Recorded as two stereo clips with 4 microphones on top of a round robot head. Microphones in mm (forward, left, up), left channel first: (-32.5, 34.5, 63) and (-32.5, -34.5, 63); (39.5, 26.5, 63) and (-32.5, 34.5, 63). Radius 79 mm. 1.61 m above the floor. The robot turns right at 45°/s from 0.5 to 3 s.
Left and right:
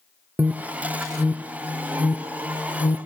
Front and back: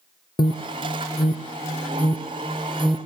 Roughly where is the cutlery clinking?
I don't hear cutlery clinking.